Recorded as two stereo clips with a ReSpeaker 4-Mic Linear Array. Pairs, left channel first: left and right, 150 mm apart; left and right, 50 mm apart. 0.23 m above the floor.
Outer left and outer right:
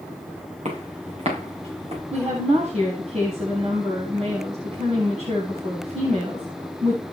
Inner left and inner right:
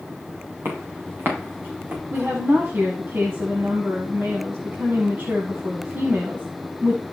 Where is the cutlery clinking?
I don't hear cutlery clinking.